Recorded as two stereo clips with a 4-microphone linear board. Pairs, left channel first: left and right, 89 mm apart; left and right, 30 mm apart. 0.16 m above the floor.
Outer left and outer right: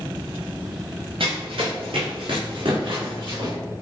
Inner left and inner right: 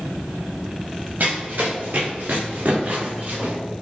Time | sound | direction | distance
1.2 | running footsteps | 85° right | 1.9 m